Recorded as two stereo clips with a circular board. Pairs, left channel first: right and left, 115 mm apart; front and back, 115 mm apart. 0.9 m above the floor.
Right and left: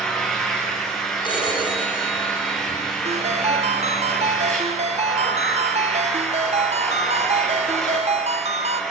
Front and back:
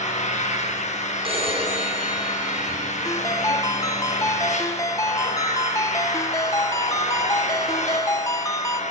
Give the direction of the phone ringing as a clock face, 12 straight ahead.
5 o'clock.